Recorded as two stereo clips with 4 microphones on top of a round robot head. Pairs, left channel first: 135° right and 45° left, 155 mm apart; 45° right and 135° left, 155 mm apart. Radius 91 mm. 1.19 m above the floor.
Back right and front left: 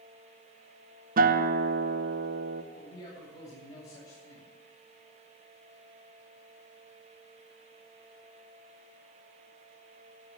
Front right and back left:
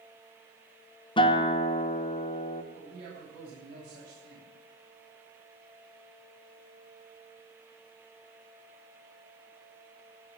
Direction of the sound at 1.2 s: 15° left.